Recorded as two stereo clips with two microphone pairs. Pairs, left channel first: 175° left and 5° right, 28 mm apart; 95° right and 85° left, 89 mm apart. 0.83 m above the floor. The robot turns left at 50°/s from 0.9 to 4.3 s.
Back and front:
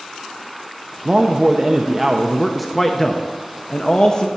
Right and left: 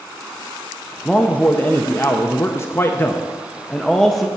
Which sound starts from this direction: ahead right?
A man speaking, at 1.1 s.